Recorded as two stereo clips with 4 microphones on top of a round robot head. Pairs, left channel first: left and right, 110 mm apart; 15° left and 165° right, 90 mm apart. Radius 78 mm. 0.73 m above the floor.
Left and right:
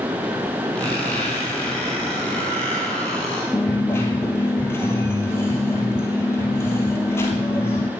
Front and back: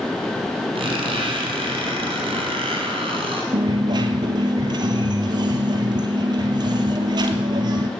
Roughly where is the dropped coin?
Behind.